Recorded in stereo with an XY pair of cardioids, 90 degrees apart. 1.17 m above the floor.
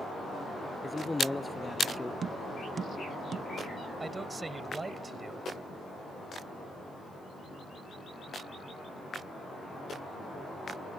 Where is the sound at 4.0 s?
25° right.